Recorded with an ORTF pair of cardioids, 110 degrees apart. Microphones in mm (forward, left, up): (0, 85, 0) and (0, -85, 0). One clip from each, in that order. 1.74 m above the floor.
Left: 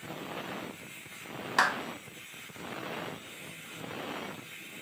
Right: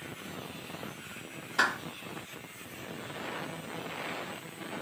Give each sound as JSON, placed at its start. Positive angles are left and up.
{"t": 1.6, "sound": "a clap", "azimuth_deg": 70, "distance_m": 1.2}